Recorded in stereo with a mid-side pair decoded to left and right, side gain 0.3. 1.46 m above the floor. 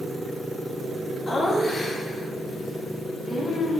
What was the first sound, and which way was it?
Laughter, 45° left.